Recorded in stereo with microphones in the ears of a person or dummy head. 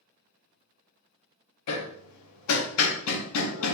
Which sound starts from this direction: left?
Hammering, at 1.7 s.